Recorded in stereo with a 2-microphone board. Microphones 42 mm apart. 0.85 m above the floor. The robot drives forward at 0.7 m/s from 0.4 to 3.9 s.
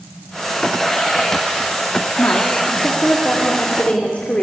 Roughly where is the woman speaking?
Left.